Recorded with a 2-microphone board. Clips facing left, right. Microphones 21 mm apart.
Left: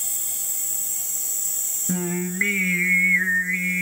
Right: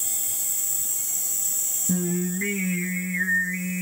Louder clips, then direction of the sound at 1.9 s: Right 1 dB; 50° left (ahead or behind).